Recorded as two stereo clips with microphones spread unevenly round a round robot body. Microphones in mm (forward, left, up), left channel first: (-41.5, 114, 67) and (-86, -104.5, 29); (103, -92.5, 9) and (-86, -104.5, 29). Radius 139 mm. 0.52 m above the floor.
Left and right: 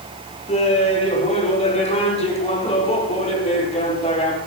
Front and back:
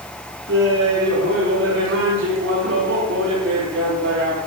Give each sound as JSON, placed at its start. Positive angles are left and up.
{"t": 0.5, "sound": "laughter", "azimuth_deg": 140, "distance_m": 7.0}